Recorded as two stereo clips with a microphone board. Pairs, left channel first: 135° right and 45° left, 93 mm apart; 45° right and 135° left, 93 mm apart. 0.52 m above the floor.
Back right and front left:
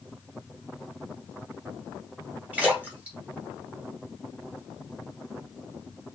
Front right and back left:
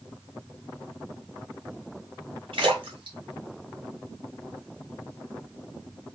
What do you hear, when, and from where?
2.5 s a splash: 120° left, 1.8 m